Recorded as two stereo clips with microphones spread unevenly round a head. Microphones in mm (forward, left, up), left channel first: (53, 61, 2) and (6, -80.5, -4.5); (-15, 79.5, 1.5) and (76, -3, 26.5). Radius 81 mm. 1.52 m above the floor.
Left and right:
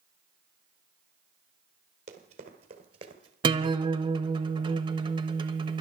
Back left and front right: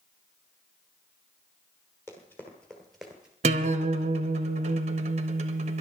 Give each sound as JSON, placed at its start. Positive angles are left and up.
{"t": 2.1, "sound": "running footsteps", "azimuth_deg": -140, "distance_m": 2.0}
{"t": 3.4, "sound": "a guitar", "azimuth_deg": -50, "distance_m": 1.0}